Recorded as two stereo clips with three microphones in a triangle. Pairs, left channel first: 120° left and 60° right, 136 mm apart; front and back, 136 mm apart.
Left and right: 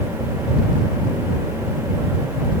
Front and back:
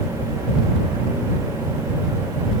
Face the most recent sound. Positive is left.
No sound to turn to.